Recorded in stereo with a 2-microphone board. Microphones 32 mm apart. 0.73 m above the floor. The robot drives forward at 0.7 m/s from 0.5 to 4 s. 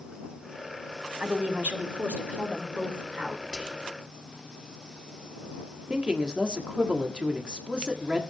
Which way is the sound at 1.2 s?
70° right (ahead or behind).